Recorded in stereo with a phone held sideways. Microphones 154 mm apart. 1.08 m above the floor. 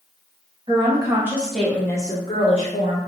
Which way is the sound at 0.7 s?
35° right (ahead or behind).